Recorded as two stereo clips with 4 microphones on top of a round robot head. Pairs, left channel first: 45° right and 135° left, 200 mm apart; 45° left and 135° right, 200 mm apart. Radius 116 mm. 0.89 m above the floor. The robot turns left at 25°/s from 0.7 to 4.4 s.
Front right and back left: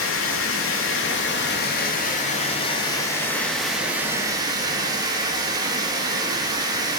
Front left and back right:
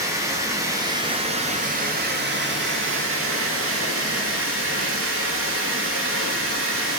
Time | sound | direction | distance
0.0 | running water | 60° right | 1.3 m